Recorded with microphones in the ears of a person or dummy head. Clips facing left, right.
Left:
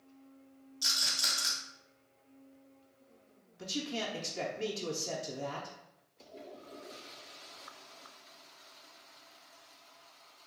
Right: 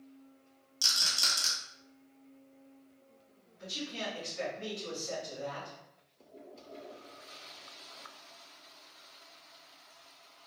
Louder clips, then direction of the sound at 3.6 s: Left 3 dB; 70° left (ahead or behind).